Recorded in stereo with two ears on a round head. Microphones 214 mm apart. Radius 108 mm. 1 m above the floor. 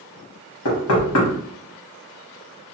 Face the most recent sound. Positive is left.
turn(degrees=65)  # may be behind; listen again after turning